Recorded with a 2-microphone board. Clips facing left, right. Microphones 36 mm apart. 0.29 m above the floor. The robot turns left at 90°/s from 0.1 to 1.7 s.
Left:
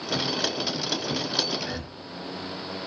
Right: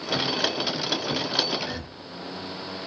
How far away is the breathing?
About 0.6 m.